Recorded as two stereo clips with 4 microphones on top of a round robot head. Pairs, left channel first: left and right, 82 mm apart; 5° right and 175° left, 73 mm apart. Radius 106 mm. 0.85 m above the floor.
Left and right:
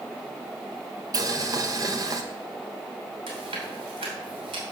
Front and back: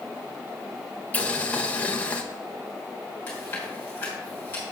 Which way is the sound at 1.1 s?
65° right.